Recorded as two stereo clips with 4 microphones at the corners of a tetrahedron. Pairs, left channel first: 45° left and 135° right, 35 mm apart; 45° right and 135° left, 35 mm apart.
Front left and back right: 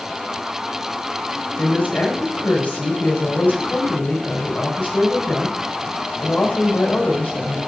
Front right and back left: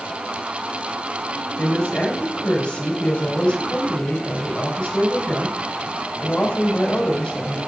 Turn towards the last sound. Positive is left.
turn(degrees=10)